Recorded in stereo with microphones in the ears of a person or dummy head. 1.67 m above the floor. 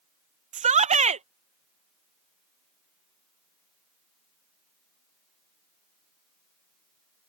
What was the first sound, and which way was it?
A shout, 35° right (ahead or behind).